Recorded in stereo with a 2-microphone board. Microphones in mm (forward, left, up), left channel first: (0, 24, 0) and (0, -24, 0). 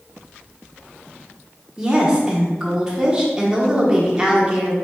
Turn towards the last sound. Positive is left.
turn(degrees=-15)  # may be behind; listen again after turning